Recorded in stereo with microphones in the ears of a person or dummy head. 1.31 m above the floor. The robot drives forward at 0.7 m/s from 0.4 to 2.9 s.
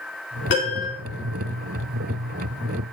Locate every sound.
0.5 s a piano: 55° left (ahead or behind), 2 m; by 0.9 s 50° left (ahead or behind), 2.5 m